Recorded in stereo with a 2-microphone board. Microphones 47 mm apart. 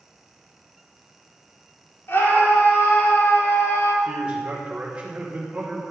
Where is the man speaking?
25° right (ahead or behind), 3 m.